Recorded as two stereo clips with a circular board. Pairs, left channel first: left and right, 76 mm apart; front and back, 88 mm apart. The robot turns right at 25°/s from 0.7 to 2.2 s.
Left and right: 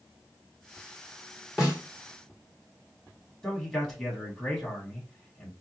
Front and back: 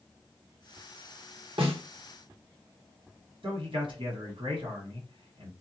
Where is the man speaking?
Straight behind, 1.4 m.